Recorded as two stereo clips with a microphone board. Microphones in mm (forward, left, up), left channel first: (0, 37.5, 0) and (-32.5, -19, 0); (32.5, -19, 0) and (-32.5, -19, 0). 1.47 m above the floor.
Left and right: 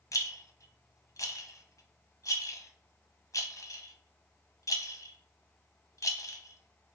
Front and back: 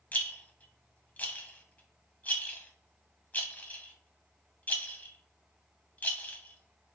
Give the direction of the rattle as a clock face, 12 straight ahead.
10 o'clock.